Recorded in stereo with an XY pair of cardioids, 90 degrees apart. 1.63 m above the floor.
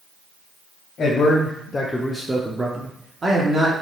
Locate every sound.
1.0 s a man speaking: 60° left, 0.8 m; by 3.7 s 50° right, 1.0 m